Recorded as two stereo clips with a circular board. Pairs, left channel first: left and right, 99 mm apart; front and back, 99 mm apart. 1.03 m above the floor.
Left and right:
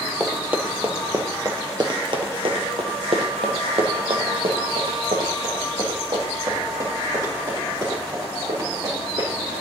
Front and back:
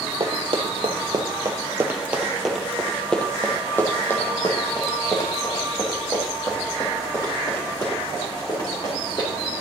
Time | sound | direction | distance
0.2 | running footsteps | 165° right | 2.0 m